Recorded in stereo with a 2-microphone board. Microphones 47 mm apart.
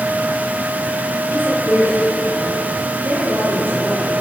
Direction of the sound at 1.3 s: 50° right (ahead or behind).